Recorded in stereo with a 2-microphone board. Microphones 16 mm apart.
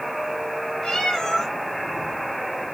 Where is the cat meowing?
50° left (ahead or behind), 5.5 m.